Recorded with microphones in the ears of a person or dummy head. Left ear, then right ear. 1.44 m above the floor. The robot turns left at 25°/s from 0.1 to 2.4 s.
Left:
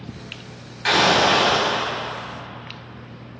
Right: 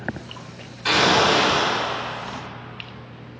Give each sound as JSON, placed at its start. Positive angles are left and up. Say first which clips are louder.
{"t": 0.8, "sound": "an explosion", "louder": "left 1 dB", "side_deg": 45, "distance_m": 2.5}